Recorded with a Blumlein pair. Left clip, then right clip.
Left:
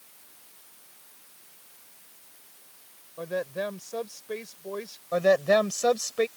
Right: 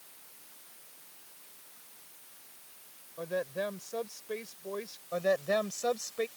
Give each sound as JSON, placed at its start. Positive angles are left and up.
{"t": 3.2, "sound": "a woman speaking", "azimuth_deg": 10}
{"t": 5.1, "sound": "a woman speaking", "azimuth_deg": 20}